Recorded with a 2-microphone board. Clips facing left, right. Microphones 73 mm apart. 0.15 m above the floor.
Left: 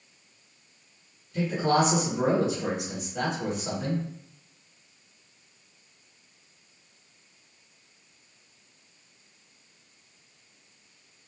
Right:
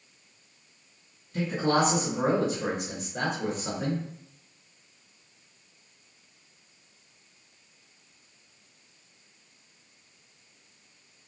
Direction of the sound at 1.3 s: 35° right (ahead or behind).